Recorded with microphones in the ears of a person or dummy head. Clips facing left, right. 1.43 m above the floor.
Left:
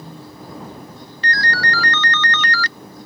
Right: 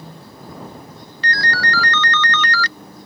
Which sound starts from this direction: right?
A ringtone, at 1.2 s.